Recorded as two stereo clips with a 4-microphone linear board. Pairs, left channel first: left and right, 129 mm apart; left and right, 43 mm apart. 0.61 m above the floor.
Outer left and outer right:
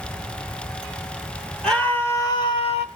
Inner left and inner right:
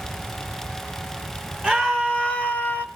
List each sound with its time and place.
1.6 s a scream: 5° left (ahead or behind), 1.4 m; by 2.9 s 50° left (ahead or behind), 1.3 m